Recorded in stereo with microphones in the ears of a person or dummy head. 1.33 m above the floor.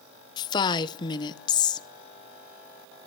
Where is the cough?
I don't hear a cough.